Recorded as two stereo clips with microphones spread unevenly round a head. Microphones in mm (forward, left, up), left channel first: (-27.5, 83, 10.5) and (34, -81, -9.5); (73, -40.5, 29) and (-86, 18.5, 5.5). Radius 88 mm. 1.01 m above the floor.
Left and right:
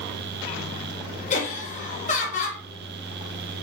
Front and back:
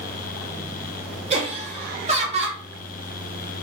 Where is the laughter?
150° left, 1.1 m.